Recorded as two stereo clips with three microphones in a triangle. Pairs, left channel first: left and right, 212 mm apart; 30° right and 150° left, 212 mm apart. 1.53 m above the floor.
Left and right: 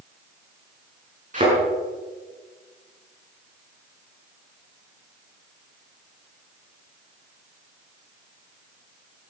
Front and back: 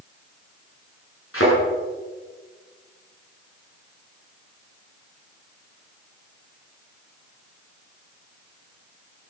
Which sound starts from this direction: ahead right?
A thud, at 1.3 s.